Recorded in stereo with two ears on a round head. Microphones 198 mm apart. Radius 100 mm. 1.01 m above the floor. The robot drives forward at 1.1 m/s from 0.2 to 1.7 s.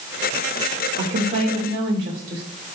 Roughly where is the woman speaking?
Right.